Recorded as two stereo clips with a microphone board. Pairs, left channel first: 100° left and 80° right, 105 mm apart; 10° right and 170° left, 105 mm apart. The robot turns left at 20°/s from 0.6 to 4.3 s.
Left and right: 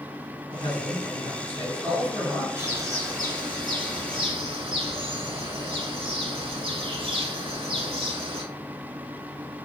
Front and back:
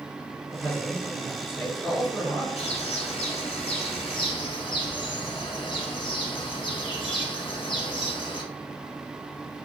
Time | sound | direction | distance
0.5 | a man speaking | 65° left | 1.6 m
2.6 | a bird | 15° right | 0.9 m